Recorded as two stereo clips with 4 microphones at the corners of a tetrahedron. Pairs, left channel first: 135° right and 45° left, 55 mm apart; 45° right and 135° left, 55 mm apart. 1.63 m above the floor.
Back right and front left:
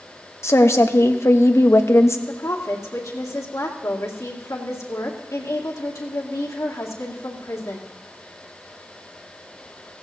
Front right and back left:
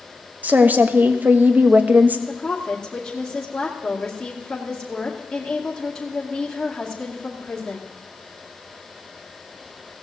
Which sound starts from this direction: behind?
A woman speaking, at 0.4 s.